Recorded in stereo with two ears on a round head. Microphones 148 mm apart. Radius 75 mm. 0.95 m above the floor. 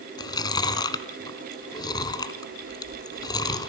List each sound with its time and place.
0.2 s chewing: 25° left (ahead or behind), 1.5 m